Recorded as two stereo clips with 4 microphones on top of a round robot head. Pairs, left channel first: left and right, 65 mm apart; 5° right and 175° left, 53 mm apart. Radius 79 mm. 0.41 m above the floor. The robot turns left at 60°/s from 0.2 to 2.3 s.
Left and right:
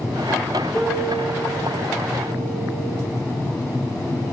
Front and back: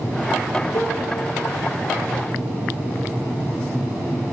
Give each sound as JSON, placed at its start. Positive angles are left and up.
{"t": 0.7, "sound": "a piano", "azimuth_deg": 20, "distance_m": 8.5}